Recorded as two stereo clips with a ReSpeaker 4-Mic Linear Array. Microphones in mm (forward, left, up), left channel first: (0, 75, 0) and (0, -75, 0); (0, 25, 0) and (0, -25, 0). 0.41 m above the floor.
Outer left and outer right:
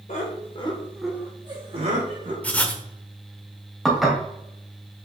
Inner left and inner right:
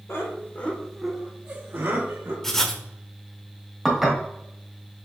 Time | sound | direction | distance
0.1 | laughter | 55° left (ahead or behind) | 1.3 m
2.4 | writing | 10° left (ahead or behind) | 0.5 m
3.9 | dishes clattering | centre (ahead or behind) | 1.2 m